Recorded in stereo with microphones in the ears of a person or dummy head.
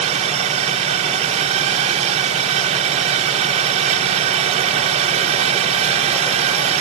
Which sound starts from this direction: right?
A drone, at 0.0 s.